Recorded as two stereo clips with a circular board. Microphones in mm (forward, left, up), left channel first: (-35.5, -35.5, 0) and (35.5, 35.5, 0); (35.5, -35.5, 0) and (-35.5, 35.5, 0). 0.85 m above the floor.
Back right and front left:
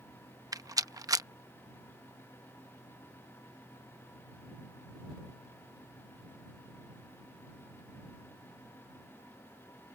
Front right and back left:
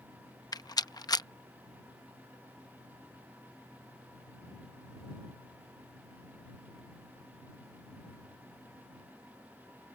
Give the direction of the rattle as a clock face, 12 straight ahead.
12 o'clock.